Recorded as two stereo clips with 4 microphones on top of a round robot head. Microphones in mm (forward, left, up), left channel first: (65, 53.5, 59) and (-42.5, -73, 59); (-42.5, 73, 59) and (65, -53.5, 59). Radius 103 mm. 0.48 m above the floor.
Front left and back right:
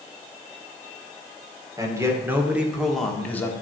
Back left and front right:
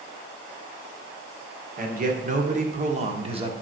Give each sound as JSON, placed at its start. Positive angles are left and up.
{"t": 1.8, "sound": "a man speaking", "azimuth_deg": -65, "distance_m": 2.0}